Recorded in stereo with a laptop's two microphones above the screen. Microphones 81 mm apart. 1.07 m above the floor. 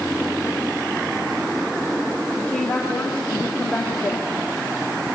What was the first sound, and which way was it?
A woman speaking, 15° left (ahead or behind).